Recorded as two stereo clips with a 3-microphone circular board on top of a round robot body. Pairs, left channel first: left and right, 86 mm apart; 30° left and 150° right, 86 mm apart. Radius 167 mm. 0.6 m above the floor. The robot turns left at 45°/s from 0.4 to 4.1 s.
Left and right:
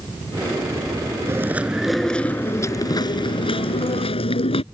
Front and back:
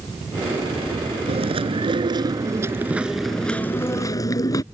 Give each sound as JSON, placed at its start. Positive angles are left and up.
{"t": 1.3, "sound": "chewing", "azimuth_deg": -150}